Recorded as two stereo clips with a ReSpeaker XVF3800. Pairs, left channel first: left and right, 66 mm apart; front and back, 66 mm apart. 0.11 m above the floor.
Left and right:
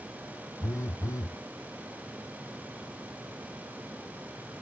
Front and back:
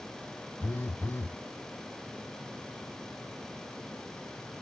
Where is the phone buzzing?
50° left, 0.6 m.